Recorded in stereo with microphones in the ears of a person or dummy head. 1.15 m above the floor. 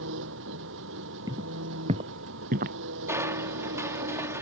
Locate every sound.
0.0 s an engine running: 65° right (ahead or behind)
1.3 s footsteps: 20° right (ahead or behind); by 2.8 s 50° right (ahead or behind)
3.1 s crushing: 15° right (ahead or behind)